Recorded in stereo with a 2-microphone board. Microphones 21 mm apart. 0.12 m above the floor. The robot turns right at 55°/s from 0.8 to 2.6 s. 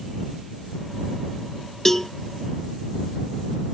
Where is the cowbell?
15° left (ahead or behind); by 2.1 s 10° left (ahead or behind).